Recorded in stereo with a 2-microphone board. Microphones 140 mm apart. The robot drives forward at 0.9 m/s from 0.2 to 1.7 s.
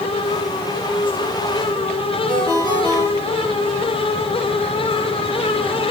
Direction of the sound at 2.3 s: 35° left (ahead or behind).